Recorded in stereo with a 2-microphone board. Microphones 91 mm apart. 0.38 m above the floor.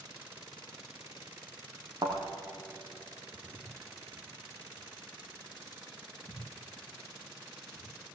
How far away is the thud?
About 4 m.